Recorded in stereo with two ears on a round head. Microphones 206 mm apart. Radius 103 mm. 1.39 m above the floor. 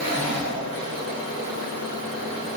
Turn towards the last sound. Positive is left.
turn(degrees=-40)  # may be behind; listen again after turning